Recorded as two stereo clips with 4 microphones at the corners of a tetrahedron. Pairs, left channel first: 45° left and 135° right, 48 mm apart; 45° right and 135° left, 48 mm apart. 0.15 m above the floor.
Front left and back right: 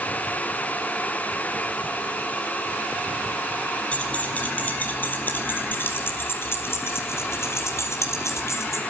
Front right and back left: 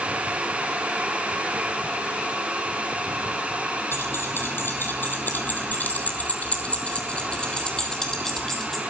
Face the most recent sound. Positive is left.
turn(degrees=35)